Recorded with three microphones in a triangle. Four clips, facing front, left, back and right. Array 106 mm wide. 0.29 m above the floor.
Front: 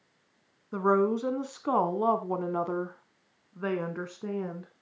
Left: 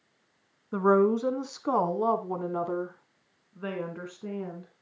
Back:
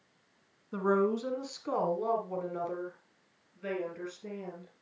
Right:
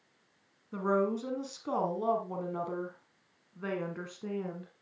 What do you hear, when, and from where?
0.7 s a woman speaking: 70° left, 2.5 m; by 4.7 s 5° right, 2.5 m